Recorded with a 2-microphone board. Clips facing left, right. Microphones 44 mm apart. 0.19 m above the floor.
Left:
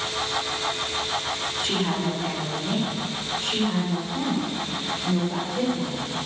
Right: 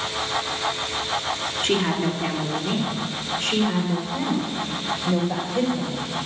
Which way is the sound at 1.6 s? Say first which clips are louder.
Right 4 dB; 50° right (ahead or behind).